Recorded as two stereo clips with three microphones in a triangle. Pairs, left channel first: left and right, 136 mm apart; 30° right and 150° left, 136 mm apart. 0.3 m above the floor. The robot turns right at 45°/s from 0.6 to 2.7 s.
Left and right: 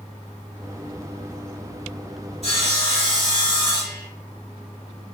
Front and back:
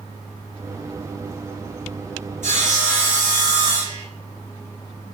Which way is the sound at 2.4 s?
125° left.